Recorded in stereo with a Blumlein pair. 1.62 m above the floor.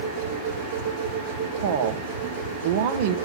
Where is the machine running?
50° right, 3 m.